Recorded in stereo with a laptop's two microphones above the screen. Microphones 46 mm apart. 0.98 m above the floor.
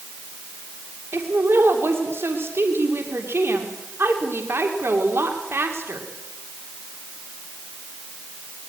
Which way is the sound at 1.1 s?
60° right (ahead or behind).